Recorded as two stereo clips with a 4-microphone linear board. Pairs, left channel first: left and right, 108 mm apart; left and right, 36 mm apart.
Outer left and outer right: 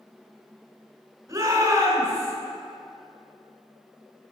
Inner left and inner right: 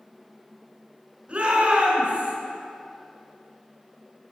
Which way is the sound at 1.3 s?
30° right (ahead or behind).